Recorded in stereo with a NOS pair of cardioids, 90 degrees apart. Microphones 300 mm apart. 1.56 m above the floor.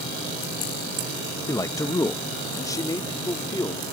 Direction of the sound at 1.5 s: 10° left.